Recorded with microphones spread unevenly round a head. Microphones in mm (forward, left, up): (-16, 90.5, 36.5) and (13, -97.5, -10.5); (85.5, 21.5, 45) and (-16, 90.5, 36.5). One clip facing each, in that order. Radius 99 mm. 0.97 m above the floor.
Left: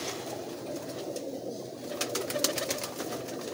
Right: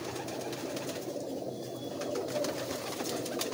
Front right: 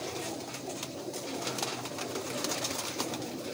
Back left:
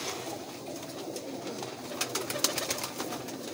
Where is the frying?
No frying in this recording.